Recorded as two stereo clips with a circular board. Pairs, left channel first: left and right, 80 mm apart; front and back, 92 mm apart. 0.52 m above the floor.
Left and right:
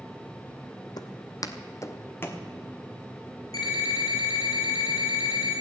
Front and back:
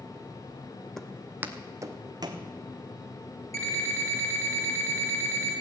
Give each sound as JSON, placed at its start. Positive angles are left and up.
{"t": 1.0, "sound": "footsteps", "azimuth_deg": 85, "distance_m": 0.9}
{"t": 3.5, "sound": "an alarm clock", "azimuth_deg": 55, "distance_m": 4.0}